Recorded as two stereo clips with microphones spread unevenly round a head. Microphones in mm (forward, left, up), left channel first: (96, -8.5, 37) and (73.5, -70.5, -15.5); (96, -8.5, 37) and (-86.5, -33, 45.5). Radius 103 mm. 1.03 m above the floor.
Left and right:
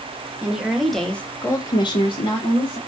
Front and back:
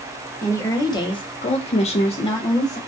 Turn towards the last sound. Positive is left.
turn(degrees=70)